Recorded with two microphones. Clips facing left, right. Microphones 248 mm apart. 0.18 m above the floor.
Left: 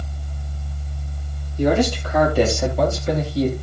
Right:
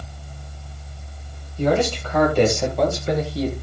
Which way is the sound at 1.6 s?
15° left (ahead or behind).